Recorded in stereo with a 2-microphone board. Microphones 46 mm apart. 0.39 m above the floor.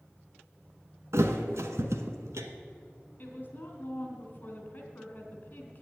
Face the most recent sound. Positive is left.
turn(degrees=40)  # may be behind; listen again after turning